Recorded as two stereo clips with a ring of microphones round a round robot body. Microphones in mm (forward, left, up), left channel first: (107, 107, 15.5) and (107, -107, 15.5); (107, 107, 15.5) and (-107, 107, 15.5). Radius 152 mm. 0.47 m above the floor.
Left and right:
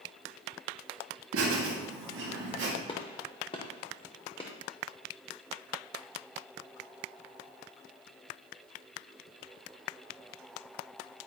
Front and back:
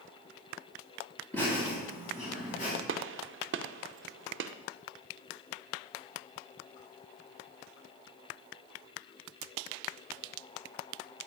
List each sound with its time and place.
1.3 s laughter: 85° right, 2.5 m; by 2.8 s 60° right, 3.5 m
2.9 s a gunshot: 160° left, 0.5 m